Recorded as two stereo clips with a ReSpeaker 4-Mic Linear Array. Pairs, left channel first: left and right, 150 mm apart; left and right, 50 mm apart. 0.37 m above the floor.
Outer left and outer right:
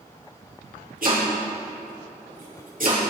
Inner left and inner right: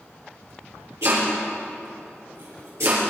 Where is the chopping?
65° right (ahead or behind), 6 m.